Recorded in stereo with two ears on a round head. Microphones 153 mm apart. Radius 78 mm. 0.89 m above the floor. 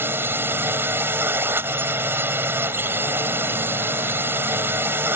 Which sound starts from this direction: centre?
A drone, at 0.0 s.